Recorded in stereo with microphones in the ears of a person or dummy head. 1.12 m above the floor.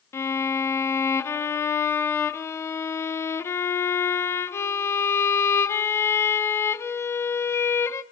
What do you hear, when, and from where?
0.1 s a violin: 10° left (ahead or behind), 0.9 m